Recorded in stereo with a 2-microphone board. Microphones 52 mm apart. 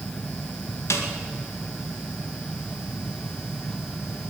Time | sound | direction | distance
0.9 | a snare drum | 65° left (ahead or behind) | 2 m